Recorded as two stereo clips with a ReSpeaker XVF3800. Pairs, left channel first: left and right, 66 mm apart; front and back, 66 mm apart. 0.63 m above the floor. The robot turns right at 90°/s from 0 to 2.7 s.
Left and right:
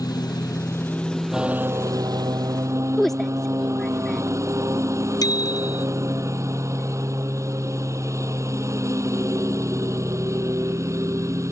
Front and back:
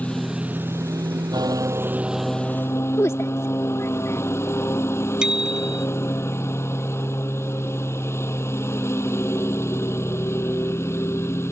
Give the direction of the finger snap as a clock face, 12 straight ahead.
No finger snap in this recording.